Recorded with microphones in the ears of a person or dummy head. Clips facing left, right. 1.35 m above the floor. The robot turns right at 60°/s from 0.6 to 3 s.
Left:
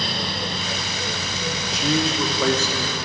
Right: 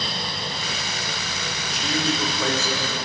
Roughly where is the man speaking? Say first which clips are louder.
Left 3 dB; ahead left.